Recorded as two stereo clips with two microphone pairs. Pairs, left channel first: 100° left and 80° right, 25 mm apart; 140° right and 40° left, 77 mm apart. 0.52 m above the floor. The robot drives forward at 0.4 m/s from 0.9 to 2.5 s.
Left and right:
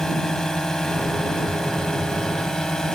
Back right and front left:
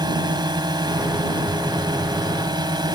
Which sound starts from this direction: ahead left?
A drone, at 0.0 s.